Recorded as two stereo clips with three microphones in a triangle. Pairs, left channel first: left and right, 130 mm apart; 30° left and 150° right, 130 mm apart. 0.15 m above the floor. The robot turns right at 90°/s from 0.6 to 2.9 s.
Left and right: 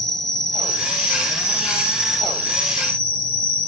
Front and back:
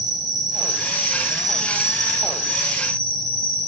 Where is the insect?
170° left, 1.6 m; by 3.7 s 15° left, 1.6 m.